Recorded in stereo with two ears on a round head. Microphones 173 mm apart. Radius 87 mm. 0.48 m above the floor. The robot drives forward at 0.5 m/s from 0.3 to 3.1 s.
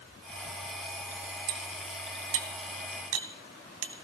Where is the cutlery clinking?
55° right (ahead or behind), 2 m; by 3.9 s 70° right (ahead or behind), 1.9 m.